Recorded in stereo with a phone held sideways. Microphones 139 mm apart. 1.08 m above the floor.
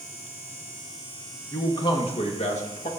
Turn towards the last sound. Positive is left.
turn(degrees=60)  # may be behind; listen again after turning